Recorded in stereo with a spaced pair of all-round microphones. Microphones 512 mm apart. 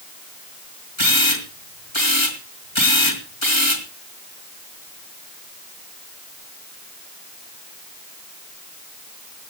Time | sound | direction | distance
1.0 | a camera shutter | 65° left (ahead or behind) | 3.5 m